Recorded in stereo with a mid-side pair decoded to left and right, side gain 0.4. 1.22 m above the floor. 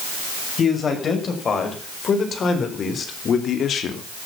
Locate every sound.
0.6 s a man speaking: 50° left, 6.5 m; by 4.0 s 70° left, 2.5 m